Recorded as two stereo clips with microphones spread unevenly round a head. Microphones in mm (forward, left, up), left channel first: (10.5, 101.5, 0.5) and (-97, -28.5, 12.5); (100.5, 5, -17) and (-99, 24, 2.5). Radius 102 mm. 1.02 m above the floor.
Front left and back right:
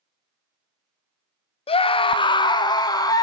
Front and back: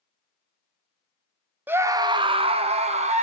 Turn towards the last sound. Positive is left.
turn(degrees=115)